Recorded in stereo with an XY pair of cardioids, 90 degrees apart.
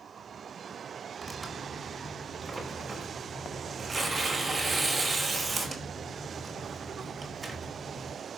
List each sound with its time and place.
1.2 s tearing paper: 25° right, 4.5 m